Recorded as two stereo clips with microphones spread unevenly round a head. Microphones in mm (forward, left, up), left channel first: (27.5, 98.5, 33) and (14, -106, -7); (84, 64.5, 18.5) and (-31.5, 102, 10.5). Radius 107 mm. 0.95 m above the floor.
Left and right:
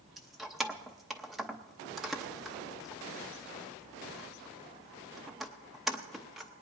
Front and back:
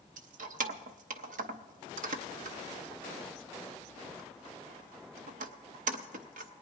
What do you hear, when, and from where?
0.2 s keys jangling: 175° left, 0.7 m